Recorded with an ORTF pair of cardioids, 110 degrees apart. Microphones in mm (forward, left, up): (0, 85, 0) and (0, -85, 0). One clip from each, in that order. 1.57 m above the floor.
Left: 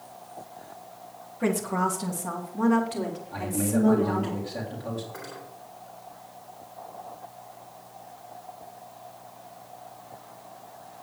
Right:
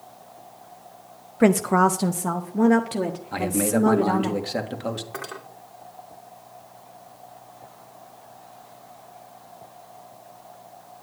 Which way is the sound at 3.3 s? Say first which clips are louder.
Right 5 dB; 70° right.